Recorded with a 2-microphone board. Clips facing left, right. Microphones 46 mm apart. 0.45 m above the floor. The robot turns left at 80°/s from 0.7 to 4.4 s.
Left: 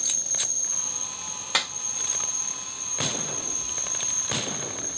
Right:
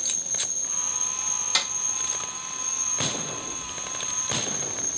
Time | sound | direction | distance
0.0 | an insect | 30° right | 0.8 m
1.5 | a clap | 30° left (ahead or behind) | 1.5 m